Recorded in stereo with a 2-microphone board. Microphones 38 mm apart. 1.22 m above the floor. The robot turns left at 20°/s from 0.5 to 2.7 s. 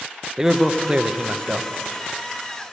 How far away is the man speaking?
About 0.7 m.